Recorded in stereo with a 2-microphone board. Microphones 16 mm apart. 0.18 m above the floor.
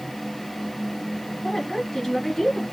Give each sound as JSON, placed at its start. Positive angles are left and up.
{"t": 1.4, "sound": "a woman speaking", "side_deg": 20, "distance_m": 1.6}